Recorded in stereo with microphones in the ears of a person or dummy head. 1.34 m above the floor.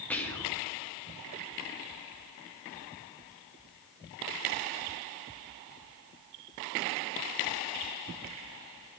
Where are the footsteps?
No footsteps in this recording.